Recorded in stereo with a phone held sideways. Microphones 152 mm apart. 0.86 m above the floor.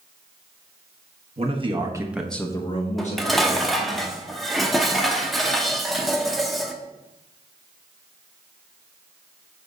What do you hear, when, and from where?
1.4 s a man speaking: 40° right (ahead or behind), 1.3 m; by 4.0 s 65° left (ahead or behind), 1.8 m
3.0 s dishes clattering: centre (ahead or behind), 0.7 m